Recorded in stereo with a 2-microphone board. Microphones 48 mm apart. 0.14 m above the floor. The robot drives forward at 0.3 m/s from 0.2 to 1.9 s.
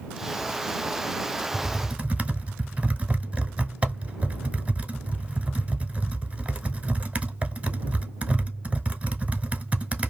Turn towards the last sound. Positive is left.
turn(degrees=-25)  # may be behind; listen again after turning